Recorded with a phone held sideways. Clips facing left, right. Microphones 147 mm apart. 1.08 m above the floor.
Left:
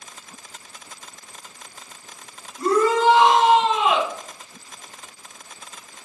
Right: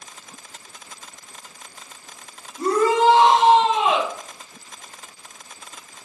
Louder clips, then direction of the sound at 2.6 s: Even; 30° right (ahead or behind).